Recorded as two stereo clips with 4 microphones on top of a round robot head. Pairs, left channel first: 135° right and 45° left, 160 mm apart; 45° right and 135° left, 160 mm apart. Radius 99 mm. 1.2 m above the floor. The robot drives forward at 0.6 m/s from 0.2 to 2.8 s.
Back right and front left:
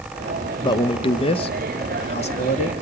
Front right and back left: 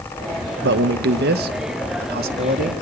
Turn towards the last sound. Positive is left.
turn(degrees=170)